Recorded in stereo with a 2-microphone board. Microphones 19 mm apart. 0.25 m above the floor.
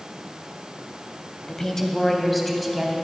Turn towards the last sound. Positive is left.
turn(degrees=-10)  # may be behind; listen again after turning